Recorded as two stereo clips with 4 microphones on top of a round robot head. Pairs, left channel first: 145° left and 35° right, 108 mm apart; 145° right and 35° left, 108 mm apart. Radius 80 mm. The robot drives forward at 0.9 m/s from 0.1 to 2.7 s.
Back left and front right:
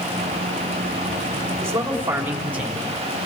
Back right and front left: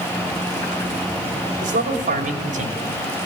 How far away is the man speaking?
About 3.5 m.